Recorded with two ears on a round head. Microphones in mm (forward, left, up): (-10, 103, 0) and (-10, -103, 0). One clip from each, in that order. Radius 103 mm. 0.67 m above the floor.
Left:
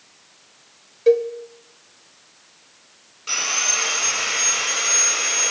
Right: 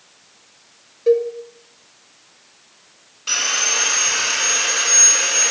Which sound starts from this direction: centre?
Sawing, at 3.3 s.